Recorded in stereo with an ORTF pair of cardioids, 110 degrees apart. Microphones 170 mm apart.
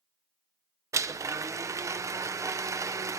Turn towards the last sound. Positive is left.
turn(degrees=-20)